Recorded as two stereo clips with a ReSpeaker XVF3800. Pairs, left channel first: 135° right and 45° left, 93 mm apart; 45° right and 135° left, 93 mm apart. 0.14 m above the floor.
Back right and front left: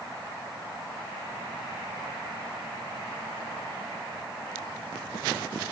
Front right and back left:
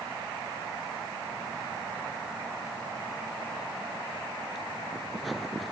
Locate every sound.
Only background noise.